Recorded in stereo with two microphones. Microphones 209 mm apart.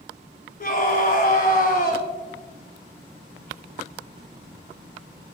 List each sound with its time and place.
0.6 s a scream: 45° left (ahead or behind), 1.4 m